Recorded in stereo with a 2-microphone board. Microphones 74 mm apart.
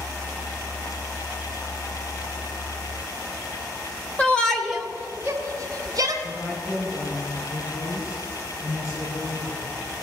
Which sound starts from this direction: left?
A woman speaking, at 6.2 s.